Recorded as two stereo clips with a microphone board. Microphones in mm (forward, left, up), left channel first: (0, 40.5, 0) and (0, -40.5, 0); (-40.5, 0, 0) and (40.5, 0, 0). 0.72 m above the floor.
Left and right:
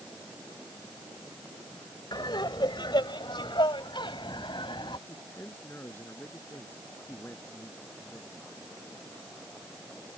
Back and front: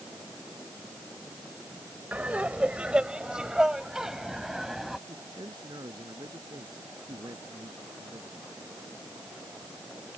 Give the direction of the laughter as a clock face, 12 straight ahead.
10 o'clock.